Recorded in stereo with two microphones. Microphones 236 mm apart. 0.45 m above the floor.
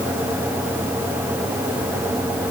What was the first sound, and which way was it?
Only background noise.